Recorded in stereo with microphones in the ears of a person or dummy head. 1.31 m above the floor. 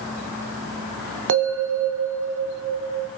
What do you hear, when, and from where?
1.3 s a bell: 65° right (ahead or behind), 0.6 m